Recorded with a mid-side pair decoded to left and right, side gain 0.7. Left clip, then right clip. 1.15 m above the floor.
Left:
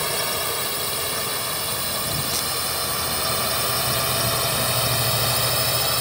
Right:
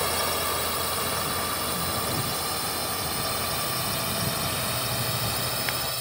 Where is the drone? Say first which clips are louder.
Left 2 dB; 15° left; by 6.0 s 30° left.